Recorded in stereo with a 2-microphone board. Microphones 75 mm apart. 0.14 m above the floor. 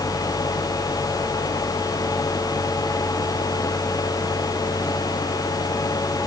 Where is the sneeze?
No sneeze in this recording.